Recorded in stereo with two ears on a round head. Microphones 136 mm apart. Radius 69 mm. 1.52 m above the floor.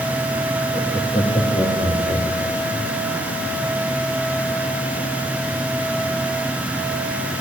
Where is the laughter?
10° left (ahead or behind), 2.5 m; by 2.9 s 30° left (ahead or behind), 4.5 m.